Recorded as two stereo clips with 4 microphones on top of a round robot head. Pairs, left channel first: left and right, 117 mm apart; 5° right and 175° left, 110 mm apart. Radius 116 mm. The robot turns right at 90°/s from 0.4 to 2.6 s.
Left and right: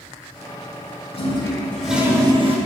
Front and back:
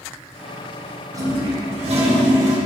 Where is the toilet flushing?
115° left, 2 m; by 2.6 s 115° right, 2 m.